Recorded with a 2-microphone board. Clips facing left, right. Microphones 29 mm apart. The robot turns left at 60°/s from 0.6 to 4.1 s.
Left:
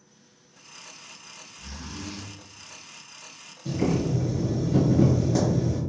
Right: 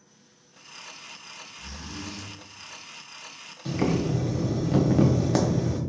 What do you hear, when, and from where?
1.6 s a zipper: 170° right, 1.1 m; by 2.3 s 150° left, 1.1 m
3.6 s boiling: 55° right (ahead or behind), 0.7 m; by 5.8 s 85° right, 0.7 m